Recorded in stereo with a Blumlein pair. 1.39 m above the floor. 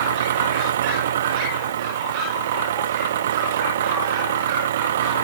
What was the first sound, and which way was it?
An engine running, 60° right.